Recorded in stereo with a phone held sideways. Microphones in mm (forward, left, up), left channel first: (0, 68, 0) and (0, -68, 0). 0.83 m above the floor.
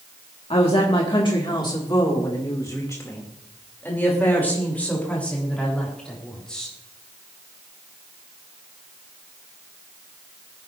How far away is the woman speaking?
About 1.8 m.